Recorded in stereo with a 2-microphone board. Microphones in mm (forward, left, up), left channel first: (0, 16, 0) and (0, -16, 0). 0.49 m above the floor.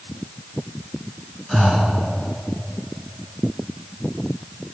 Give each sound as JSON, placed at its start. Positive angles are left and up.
{"t": 1.5, "sound": "breathing", "side_deg": 5, "distance_m": 1.8}